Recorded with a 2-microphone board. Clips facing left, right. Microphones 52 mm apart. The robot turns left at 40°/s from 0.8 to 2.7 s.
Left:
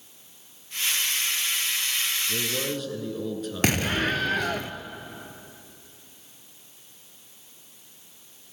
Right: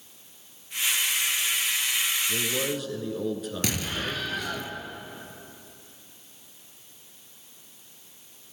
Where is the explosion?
50° left (ahead or behind), 0.5 m.